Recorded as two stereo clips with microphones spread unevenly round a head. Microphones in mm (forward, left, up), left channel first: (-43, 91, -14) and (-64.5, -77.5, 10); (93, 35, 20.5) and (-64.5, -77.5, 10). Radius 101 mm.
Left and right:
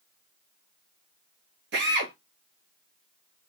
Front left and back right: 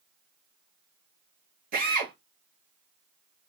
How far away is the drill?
About 1.7 m.